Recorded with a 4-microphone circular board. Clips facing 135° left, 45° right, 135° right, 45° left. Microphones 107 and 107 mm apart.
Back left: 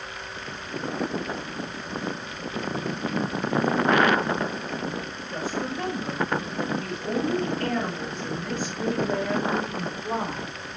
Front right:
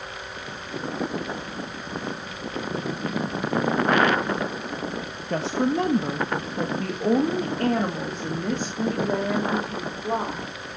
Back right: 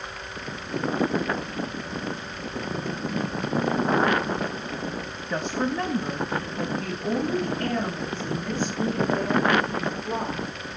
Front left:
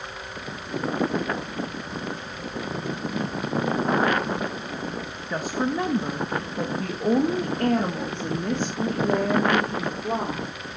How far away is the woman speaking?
About 1.1 m.